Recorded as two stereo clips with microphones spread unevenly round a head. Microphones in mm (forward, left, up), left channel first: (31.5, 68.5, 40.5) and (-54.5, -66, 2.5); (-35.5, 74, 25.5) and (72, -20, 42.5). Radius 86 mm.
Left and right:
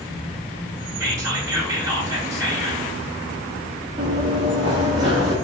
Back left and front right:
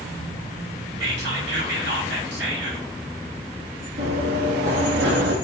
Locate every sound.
1.0 s whispering: 50° right, 3 m
4.0 s running footsteps: 55° right, 3 m; by 5.3 s 50° right, 3.5 m